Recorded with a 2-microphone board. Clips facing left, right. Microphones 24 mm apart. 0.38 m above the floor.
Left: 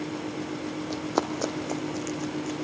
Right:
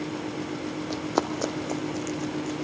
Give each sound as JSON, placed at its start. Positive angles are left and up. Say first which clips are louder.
{"t": 0.9, "sound": "running footsteps", "louder": "right 1 dB", "side_deg": -10, "distance_m": 1.0}